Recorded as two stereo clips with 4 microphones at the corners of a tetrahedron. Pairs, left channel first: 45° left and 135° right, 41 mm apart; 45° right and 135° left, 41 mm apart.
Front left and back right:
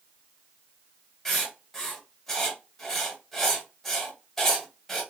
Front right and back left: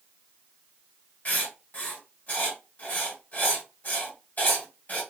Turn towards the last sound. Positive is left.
turn(degrees=-35)